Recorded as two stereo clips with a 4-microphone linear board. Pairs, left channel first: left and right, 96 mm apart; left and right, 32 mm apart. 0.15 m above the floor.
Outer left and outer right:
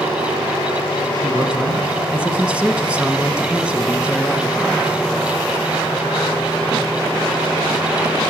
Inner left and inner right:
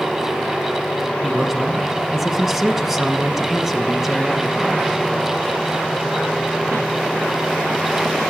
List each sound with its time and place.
1.2 s a man speaking: 10° right (ahead or behind), 1.2 m